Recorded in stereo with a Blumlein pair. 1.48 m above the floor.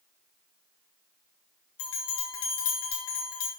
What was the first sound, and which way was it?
A bell, 55° left.